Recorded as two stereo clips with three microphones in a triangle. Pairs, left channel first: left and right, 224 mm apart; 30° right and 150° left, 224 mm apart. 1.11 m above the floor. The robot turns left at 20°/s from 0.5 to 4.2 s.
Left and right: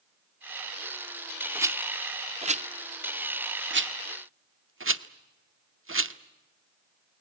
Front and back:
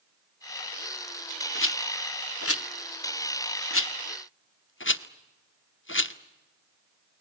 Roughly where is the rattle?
Ahead.